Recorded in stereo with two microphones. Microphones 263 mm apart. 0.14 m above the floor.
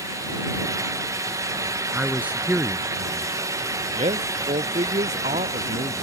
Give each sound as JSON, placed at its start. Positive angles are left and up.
{"t": 1.9, "sound": "a man speaking", "side_deg": -5}
{"t": 3.9, "sound": "a man speaking", "side_deg": -25}